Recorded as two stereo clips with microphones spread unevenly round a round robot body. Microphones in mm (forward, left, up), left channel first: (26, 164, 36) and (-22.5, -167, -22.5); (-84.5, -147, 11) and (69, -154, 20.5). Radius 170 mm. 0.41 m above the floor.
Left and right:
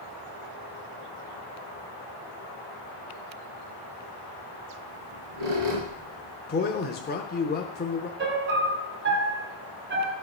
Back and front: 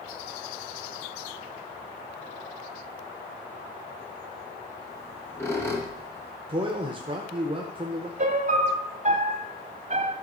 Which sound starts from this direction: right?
A squeak, at 4.9 s.